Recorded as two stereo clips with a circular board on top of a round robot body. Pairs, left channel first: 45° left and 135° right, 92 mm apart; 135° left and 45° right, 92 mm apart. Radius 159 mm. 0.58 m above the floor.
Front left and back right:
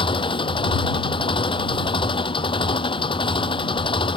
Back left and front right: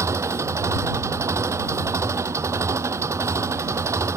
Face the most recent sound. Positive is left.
turn(degrees=15)